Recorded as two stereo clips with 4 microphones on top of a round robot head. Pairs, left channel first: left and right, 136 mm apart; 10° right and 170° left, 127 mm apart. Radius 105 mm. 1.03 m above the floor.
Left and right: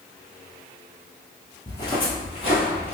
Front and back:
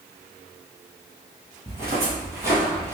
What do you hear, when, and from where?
1.7 s footsteps: 130° left, 1.1 m; by 2.9 s 110° left, 1.6 m